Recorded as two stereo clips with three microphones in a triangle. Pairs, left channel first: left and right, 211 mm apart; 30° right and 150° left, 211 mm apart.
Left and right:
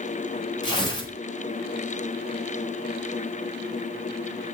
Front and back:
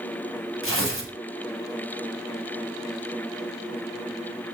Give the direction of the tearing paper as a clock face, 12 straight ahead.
7 o'clock.